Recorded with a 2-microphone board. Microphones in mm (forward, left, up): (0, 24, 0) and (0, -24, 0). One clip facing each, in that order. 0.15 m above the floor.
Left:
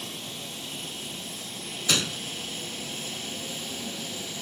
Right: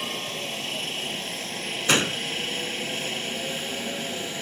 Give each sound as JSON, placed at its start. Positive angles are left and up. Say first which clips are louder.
{"t": 0.0, "sound": "a helicopter", "louder": "right 7 dB", "side_deg": -65}
{"t": 1.9, "sound": "a gunshot", "louder": "right 5 dB", "side_deg": -40}